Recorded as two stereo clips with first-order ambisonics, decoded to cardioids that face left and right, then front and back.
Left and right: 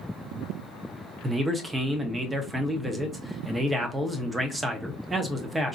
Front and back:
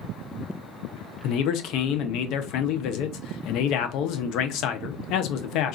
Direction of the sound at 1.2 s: 15° right.